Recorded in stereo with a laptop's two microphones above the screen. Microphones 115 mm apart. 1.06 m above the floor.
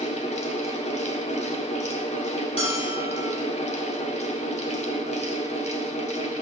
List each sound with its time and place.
0.0 s a fan: 75° left (ahead or behind), 1.3 m
2.6 s a bell: 65° left (ahead or behind), 4.5 m